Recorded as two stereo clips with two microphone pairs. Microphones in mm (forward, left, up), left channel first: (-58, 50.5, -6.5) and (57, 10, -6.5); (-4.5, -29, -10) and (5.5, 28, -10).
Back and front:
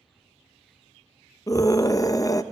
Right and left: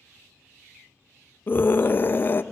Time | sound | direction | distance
1.5 | a scream | 145° right | 0.6 m